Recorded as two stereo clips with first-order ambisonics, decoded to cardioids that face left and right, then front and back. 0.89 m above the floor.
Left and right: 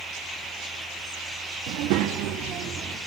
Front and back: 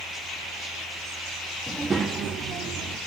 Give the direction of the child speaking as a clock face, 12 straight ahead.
3 o'clock.